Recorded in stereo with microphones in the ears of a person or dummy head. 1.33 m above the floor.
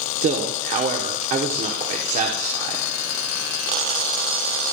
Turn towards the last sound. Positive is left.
turn(degrees=-35)  # may be behind; listen again after turning